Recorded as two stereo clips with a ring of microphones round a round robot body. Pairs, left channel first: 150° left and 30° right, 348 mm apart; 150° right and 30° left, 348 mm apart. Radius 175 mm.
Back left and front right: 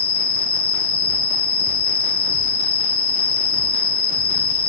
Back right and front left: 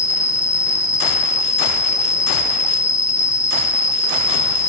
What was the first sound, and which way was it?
An insect, 115° left.